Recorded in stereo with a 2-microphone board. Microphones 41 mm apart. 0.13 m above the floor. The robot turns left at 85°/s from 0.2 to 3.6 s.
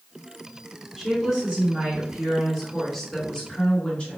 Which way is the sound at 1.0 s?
10° right (ahead or behind).